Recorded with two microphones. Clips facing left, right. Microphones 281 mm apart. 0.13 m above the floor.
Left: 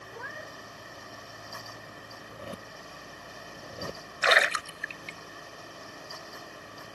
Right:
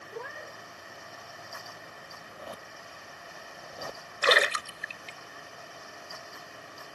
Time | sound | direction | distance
0.1 | a cat meowing | 40° right (ahead or behind) | ?
2.2 | a zipper | 30° left (ahead or behind) | ?
4.2 | a splash | 40° right (ahead or behind) | ?